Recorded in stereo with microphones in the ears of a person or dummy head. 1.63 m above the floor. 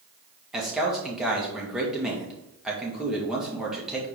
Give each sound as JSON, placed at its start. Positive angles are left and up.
{"t": 0.5, "sound": "a man speaking", "side_deg": 0, "distance_m": 2.0}